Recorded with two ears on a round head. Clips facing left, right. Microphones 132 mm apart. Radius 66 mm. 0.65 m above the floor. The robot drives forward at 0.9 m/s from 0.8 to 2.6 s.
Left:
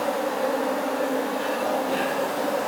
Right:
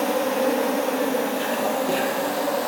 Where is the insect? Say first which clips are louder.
Right 3 dB; 75° right (ahead or behind), 1.8 m; by 2.7 s 45° right (ahead or behind), 2.5 m.